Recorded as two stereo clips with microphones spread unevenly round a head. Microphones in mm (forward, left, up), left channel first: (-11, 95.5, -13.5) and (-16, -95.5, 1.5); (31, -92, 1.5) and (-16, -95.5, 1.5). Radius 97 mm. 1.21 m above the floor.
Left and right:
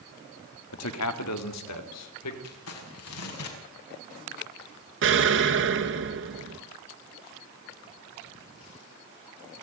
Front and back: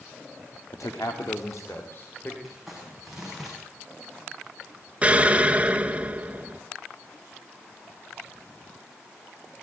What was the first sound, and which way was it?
A man speaking, 70° left.